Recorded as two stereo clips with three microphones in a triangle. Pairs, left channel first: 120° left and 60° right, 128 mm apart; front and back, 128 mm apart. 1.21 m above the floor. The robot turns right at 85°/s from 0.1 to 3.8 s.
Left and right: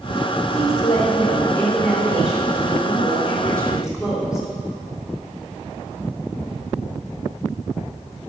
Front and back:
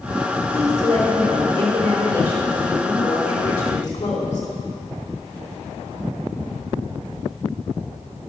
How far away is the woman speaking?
About 3 m.